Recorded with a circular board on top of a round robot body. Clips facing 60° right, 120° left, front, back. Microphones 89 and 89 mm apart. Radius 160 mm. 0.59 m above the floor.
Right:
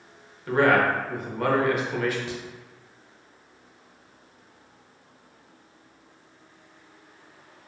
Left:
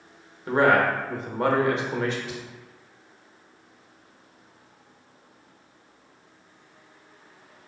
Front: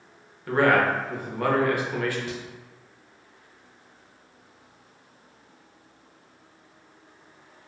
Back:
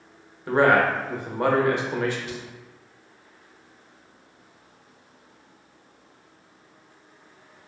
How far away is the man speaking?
About 0.9 m.